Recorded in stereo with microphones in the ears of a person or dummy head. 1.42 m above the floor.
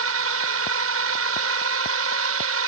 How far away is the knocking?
No knocking in this recording.